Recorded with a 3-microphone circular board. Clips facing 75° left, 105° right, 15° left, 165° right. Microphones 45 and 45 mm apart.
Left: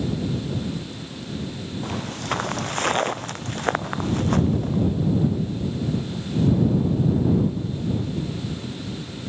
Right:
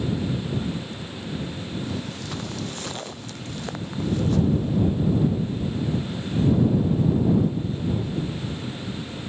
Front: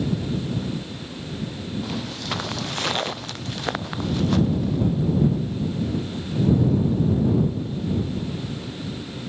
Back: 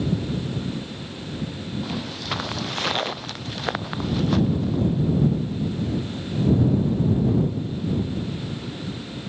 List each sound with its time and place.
1.8 s footsteps: 110° left